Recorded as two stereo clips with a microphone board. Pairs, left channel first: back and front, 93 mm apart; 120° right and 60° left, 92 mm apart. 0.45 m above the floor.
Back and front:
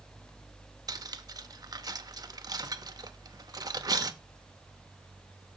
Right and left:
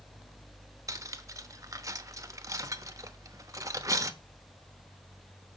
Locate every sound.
0.9 s cutlery clinking: 20° left, 0.7 m